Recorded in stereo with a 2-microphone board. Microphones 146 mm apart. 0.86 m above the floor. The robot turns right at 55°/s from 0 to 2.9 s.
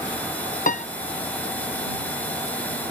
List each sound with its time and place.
0.7 s a piano: 65° left (ahead or behind); by 0.9 s 55° left (ahead or behind)